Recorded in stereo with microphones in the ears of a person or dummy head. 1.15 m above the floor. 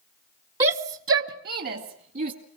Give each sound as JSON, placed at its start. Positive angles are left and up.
{"t": 0.6, "sound": "a shout", "side_deg": -25, "distance_m": 0.5}